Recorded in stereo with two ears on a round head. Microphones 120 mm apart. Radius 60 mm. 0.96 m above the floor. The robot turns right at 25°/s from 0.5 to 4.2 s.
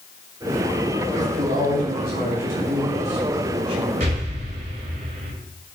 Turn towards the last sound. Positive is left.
turn(degrees=-65)  # may be behind; listen again after turning